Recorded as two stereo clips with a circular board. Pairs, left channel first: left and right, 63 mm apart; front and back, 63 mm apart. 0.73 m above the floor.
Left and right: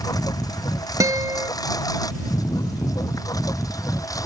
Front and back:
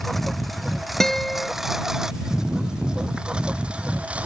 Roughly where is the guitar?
Right.